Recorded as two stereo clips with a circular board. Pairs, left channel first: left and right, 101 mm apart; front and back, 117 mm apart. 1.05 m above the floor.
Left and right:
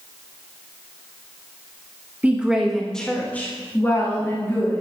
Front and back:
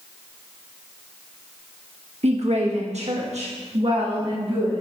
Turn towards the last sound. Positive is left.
turn(degrees=145)